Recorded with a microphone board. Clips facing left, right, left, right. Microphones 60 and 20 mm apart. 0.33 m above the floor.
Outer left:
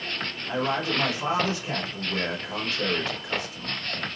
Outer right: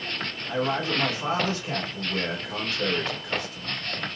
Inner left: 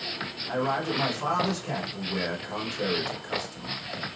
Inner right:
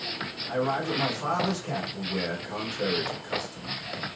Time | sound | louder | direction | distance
0.5 | a man speaking | even, even | 20° left (ahead or behind) | 1.1 m